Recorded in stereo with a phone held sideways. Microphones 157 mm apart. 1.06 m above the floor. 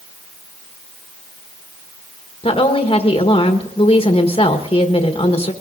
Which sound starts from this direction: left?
A woman speaking, at 2.4 s.